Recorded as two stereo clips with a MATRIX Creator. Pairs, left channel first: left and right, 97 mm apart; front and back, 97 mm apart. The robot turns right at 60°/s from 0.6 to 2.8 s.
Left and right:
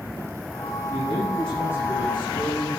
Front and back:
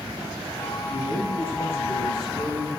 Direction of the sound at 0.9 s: 25° right.